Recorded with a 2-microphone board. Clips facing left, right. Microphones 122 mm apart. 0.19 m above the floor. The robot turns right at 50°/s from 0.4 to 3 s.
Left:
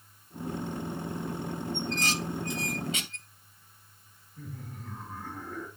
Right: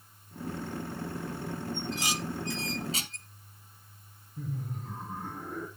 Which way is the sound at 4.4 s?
20° right (ahead or behind).